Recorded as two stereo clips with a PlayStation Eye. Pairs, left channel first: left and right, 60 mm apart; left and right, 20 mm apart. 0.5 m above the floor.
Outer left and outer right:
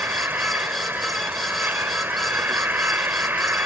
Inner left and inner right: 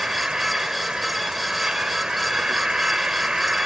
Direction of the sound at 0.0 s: 35° right (ahead or behind).